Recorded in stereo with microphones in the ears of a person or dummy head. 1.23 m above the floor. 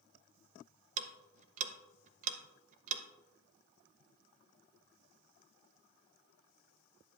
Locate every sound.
1.0 s ticking: 40° right (ahead or behind), 0.7 m